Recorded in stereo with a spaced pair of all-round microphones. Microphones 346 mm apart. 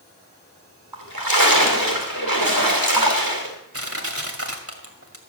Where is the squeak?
No squeak in this recording.